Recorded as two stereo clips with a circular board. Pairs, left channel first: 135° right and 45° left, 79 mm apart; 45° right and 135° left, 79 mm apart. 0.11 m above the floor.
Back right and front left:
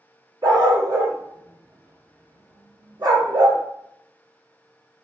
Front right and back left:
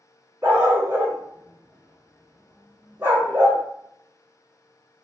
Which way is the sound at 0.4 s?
75° left.